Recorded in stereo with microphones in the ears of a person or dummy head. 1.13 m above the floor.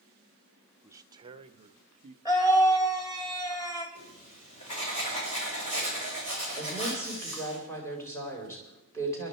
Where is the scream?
20° left (ahead or behind), 1.4 m.